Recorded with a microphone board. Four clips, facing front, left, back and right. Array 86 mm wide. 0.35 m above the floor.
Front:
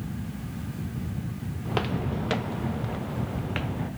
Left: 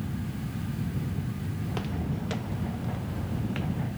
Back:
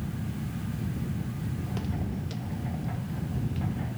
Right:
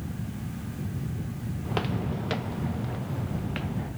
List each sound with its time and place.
1.6 s footsteps: 30° right; by 3.9 s 10° right